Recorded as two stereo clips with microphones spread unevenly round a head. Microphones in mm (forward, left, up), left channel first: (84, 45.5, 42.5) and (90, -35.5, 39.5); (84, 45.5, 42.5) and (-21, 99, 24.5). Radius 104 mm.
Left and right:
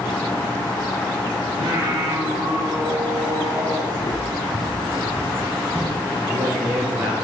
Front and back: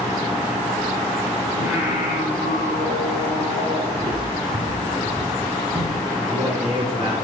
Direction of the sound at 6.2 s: 130° right.